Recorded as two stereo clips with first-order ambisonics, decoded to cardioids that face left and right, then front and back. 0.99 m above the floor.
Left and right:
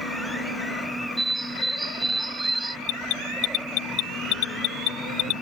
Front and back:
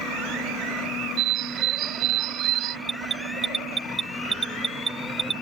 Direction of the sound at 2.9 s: 115° left.